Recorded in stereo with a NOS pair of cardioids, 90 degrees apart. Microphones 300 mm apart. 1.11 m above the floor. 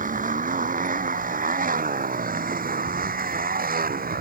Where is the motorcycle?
25° right; by 4.2 s 30° right.